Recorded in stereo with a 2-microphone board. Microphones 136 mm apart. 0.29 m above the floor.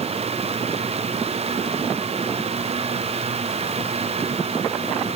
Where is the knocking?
No knocking in this recording.